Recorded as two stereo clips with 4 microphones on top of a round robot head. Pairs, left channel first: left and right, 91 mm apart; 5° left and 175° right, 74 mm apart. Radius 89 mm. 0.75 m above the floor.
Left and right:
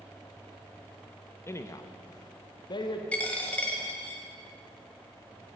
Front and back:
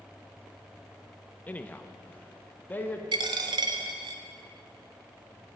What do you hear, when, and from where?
1.5 s a man speaking: 55° left, 0.8 m; by 3.0 s 70° left, 1.5 m
3.1 s a dropped coin: 170° left, 1.0 m